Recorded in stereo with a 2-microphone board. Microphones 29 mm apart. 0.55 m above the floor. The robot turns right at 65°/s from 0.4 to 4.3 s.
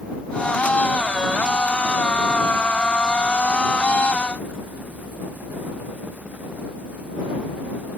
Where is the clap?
I don't hear a clap.